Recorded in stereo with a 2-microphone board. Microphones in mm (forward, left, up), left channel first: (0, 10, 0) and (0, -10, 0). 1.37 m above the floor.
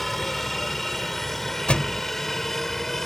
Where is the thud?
60° left (ahead or behind).